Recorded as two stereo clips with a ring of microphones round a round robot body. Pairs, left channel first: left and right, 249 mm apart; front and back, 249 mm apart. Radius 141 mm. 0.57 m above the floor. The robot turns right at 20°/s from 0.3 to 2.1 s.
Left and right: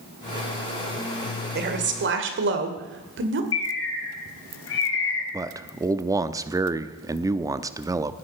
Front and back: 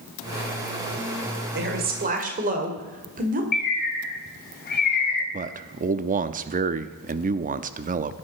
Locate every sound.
1.6 s a woman speaking: 135° right, 2 m; by 3.4 s 125° right, 2 m
3.5 s a bird: 50° left, 2 m
5.3 s a man speaking: 155° right, 0.7 m